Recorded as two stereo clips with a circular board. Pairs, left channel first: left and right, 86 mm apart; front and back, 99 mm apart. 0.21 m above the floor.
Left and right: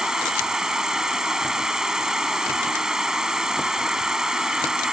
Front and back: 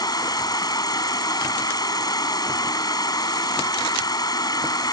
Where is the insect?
10° right.